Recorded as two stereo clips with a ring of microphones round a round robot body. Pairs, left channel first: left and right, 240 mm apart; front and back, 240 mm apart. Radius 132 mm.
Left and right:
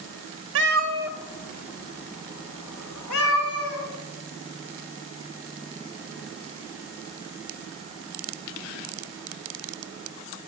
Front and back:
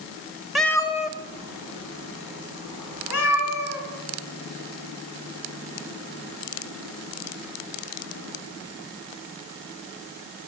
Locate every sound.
0.6 s a cat meowing: 90° right, 0.6 m; by 3.8 s 50° left, 2.5 m